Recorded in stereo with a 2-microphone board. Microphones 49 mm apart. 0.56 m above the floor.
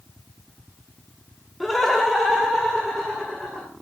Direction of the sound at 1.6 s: 5° left (ahead or behind).